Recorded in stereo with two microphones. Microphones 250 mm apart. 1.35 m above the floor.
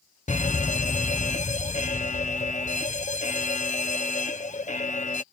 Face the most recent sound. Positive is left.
turn(degrees=30)  # may be behind; listen again after turning